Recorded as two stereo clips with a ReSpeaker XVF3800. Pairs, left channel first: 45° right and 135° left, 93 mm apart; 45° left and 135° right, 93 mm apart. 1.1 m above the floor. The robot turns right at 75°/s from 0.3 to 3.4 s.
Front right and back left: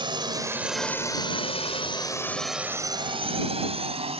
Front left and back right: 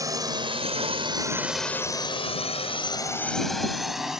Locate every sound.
0.0 s a drone: 170° left; by 4.2 s 140° left